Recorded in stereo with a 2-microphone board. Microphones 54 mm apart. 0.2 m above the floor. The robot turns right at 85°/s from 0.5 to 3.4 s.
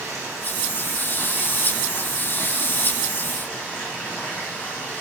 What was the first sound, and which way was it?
Running water, 100° right.